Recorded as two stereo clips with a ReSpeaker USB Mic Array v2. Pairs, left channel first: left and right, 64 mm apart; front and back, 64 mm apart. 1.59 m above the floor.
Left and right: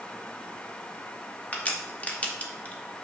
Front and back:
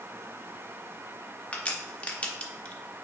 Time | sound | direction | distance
1.5 | a crack | 45° left | 1.3 m